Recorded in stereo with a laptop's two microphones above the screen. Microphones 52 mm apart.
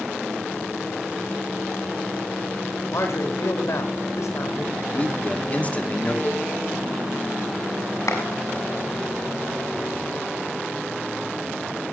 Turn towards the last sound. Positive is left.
turn(degrees=90)